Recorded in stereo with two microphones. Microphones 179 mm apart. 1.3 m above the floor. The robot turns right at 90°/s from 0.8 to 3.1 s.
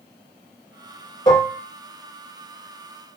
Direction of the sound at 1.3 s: 20° left (ahead or behind).